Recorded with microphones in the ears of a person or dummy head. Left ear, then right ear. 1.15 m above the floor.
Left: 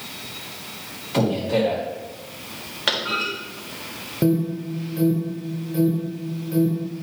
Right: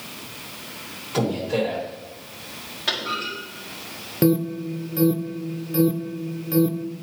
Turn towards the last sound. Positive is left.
turn(degrees=-30)  # may be behind; listen again after turning